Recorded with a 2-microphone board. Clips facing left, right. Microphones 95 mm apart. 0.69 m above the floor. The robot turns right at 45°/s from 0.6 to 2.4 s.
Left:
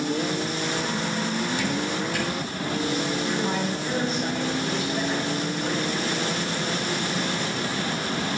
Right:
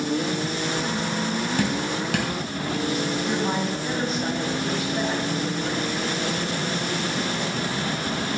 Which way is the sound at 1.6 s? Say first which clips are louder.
Right 1 dB; 50° right (ahead or behind).